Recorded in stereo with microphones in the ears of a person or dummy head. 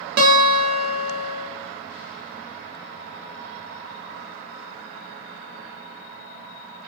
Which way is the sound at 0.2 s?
50° right (ahead or behind).